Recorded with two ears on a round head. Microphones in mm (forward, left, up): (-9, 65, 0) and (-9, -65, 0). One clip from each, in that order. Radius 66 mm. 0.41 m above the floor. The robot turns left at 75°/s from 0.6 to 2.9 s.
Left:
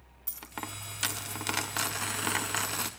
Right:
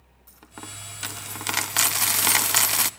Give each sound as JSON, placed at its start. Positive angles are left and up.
{"t": 0.3, "sound": "a dropped coin", "azimuth_deg": 45, "distance_m": 0.7}